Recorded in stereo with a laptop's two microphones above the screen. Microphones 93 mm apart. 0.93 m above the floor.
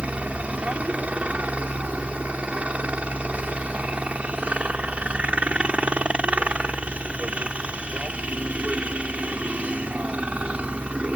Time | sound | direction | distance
0.0 | a helicopter | 15° right (ahead or behind) | ?